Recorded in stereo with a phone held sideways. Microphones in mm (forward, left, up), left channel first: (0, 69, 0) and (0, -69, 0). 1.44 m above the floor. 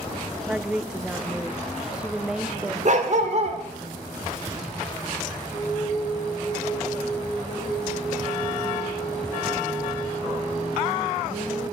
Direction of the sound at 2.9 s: 55° right (ahead or behind).